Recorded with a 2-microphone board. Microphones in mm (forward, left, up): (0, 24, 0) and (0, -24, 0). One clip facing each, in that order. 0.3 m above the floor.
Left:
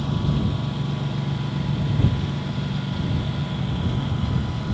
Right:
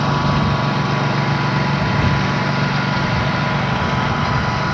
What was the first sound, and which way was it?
A lawn mower, 90° right.